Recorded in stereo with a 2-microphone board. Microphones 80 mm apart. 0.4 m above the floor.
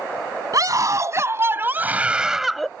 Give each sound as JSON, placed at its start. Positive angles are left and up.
{"t": 0.5, "sound": "a scream", "side_deg": -50}